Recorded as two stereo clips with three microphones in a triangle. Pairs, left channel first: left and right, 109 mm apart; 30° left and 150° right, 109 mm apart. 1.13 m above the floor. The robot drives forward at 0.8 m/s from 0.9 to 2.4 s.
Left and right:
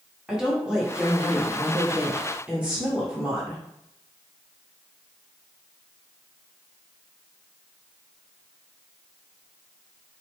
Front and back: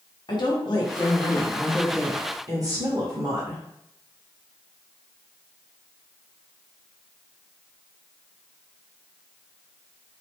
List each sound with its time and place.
0.3 s a woman speaking: 10° right, 1.0 m; by 3.6 s 160° right, 0.6 m